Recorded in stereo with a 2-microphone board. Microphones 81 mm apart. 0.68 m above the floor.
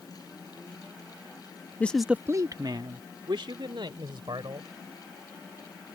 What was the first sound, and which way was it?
A man speaking, 20° left (ahead or behind).